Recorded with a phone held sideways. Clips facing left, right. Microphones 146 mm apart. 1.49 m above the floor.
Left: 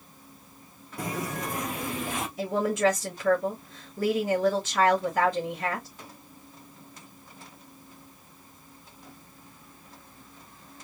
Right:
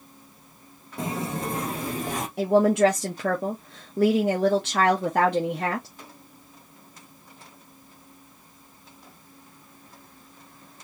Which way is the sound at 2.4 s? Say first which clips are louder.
Right 7 dB; 70° right (ahead or behind).